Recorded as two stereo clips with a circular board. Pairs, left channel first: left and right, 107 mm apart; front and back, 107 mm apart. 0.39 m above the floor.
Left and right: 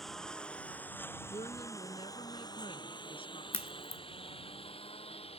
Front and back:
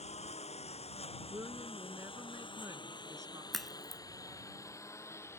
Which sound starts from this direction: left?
A crack, at 3.5 s.